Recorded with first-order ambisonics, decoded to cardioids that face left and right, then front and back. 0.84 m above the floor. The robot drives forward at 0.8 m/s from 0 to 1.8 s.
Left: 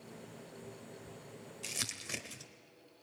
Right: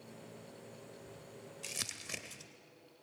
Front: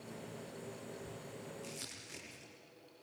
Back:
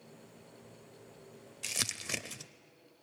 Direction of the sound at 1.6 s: 175° left.